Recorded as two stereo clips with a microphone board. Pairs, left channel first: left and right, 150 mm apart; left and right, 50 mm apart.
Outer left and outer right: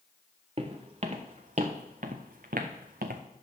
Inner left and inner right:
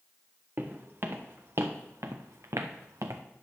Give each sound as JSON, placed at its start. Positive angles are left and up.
{"t": 0.6, "sound": "footsteps", "side_deg": -45, "distance_m": 1.9}